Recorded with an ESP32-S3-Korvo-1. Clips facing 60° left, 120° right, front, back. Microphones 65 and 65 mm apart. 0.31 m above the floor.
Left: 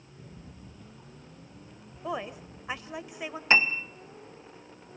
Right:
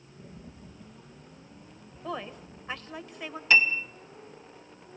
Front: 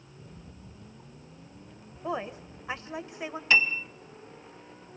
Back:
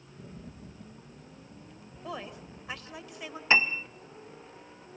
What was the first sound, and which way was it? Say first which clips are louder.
A rattle: right 2 dB, back 4 dB; 160° left.